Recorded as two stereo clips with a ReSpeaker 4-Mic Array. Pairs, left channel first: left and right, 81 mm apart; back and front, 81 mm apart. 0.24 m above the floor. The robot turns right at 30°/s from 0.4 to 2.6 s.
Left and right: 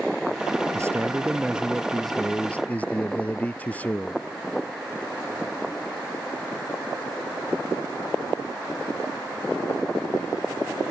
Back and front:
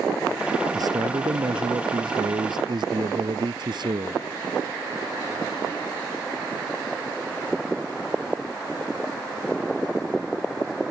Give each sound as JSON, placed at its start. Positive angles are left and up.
{"t": 0.7, "sound": "a man speaking", "azimuth_deg": -35}